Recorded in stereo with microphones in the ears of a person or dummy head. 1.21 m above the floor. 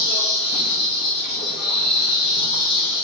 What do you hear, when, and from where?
0.0 s an insect: 55° left (ahead or behind), 1.9 m